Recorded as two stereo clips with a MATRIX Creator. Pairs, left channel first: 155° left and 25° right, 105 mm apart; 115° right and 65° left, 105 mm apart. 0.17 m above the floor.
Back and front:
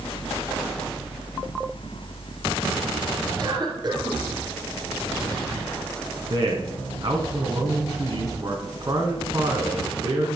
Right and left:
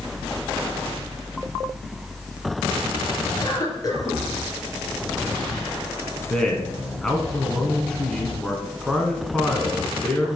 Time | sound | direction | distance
3.4 | a cough | 65° right | 2.5 m
6.3 | a man speaking | 30° right | 1.4 m